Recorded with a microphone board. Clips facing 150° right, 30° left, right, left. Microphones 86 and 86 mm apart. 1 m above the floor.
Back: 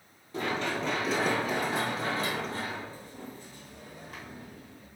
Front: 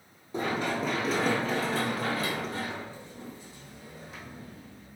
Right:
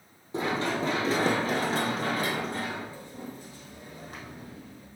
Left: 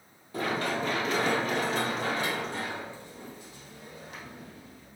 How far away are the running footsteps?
About 1.3 m.